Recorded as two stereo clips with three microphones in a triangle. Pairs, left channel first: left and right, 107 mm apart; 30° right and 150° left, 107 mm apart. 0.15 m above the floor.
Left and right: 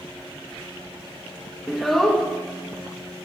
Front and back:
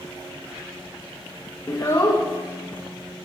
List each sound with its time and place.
1.7 s a child speaking: straight ahead, 1.2 m